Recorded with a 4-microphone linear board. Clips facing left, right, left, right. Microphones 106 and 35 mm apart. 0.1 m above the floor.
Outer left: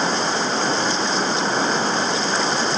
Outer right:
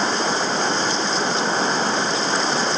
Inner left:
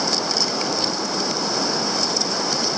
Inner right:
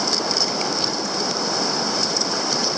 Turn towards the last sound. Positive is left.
No sound to turn to.